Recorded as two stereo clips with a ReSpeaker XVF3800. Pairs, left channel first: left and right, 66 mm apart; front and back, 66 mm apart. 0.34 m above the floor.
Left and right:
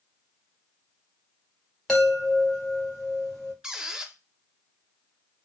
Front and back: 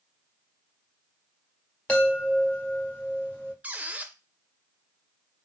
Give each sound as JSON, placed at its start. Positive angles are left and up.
{"t": 1.9, "sound": "a chime", "azimuth_deg": 20, "distance_m": 1.5}
{"t": 3.6, "sound": "a squeak", "azimuth_deg": -155, "distance_m": 0.5}